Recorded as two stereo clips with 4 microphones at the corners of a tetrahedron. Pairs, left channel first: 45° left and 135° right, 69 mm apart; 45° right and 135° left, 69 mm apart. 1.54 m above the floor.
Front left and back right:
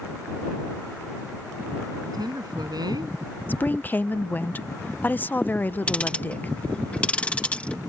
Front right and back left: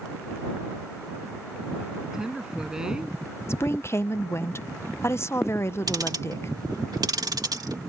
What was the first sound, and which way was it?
A woman speaking, 145° right.